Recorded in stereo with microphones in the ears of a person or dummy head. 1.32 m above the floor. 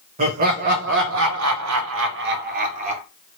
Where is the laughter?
35° right (ahead or behind), 1.1 m; by 3.0 s 40° right (ahead or behind), 1.0 m.